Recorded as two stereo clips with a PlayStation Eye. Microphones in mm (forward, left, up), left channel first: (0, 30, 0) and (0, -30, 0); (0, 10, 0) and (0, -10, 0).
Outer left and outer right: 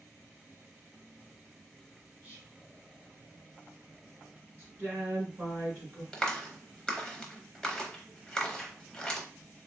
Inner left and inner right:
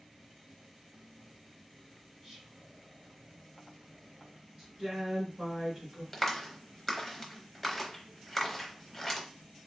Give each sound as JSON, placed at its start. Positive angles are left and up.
{"t": 2.2, "sound": "whispering", "side_deg": -30, "distance_m": 1.4}
{"t": 4.6, "sound": "a woman speaking", "side_deg": -30, "distance_m": 2.0}
{"t": 6.1, "sound": "a clap", "side_deg": 15, "distance_m": 0.7}